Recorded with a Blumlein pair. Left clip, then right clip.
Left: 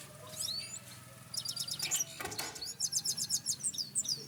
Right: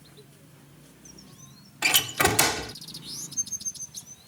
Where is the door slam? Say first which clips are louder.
Right 20 dB; 50° right.